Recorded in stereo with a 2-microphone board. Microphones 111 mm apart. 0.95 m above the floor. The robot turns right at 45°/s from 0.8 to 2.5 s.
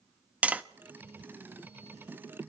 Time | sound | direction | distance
0.4 | tapping | 15° right (ahead or behind) | 0.6 m